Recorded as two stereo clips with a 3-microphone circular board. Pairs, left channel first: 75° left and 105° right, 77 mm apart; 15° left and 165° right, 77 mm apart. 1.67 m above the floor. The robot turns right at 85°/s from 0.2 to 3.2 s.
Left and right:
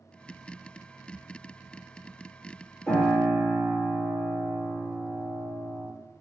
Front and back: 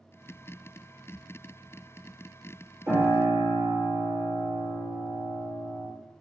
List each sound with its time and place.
2.9 s a piano: 170° right, 1.2 m; by 5.9 s 140° right, 1.2 m